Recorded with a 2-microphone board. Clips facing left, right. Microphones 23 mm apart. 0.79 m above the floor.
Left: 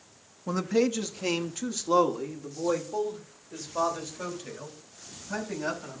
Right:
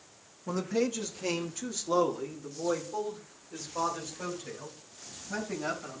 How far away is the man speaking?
About 0.7 m.